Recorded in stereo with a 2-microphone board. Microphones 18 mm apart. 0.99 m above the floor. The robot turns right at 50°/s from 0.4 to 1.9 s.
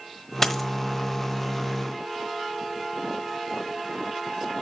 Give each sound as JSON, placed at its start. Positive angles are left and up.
{"t": 0.4, "sound": "a dropped coin", "side_deg": 15, "distance_m": 1.1}